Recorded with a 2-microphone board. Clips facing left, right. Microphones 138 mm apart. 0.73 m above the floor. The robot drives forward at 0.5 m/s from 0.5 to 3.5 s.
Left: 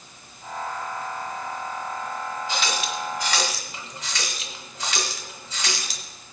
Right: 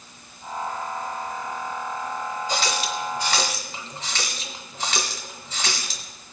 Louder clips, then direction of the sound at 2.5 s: Right 2 dB; 45° right (ahead or behind).